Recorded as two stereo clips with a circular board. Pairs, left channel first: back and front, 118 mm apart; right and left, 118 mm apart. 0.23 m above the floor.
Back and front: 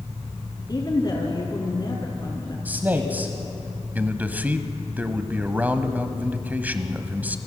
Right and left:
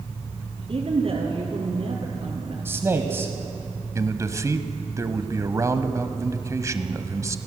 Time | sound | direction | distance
0.7 | a woman speaking | 125° left | 3 m
2.6 | a man speaking | 55° left | 1.2 m
4.0 | a man speaking | 60° left | 1.1 m